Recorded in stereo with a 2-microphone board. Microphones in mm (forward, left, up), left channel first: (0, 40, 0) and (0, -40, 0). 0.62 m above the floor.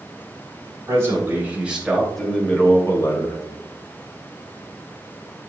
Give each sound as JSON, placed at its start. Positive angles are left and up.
{"t": 0.9, "sound": "a man speaking", "side_deg": -35, "distance_m": 3.5}